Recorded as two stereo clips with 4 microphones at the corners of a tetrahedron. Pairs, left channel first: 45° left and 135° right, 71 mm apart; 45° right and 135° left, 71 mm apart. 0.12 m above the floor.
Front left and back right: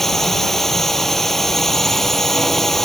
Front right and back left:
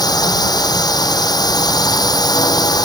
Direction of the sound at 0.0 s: 40° right.